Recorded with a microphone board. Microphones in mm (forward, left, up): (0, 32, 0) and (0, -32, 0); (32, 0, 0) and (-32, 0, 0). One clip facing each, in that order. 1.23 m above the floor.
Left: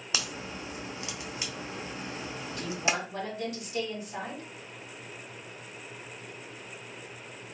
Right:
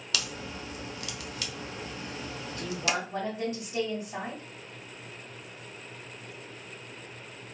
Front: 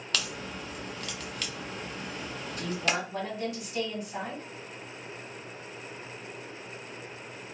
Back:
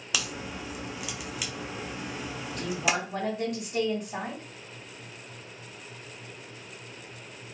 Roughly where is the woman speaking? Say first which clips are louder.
Even, back 2 dB; behind right.